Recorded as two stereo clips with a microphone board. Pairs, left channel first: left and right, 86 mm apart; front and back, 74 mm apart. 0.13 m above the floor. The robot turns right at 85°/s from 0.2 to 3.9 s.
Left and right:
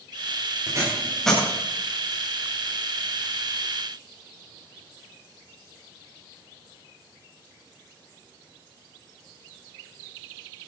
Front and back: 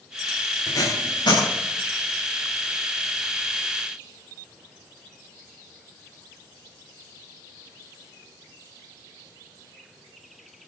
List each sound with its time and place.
0.7 s tape being pulled: 45° right, 8.5 m; by 1.4 s 20° left, 8.5 m